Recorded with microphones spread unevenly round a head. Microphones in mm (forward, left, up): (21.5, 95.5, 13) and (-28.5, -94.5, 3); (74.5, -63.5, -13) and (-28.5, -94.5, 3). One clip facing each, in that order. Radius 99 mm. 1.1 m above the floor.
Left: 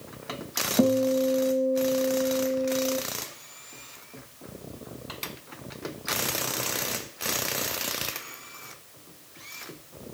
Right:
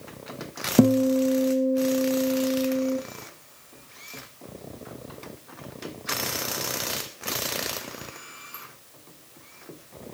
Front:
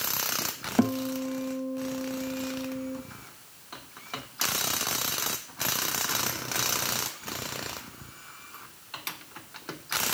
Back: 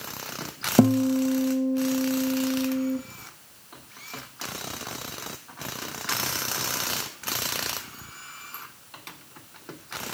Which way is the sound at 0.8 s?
130° right.